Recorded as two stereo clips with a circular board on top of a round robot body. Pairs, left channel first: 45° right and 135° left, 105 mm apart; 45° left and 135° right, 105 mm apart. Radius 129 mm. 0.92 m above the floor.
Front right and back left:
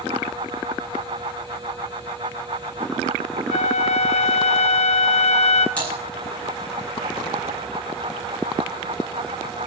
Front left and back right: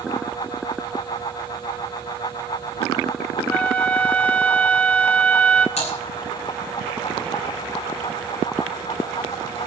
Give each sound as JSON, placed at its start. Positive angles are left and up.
{"t": 3.5, "sound": "a flute", "azimuth_deg": -35, "distance_m": 0.9}
{"t": 5.8, "sound": "typing on a keyboard", "azimuth_deg": 35, "distance_m": 8.0}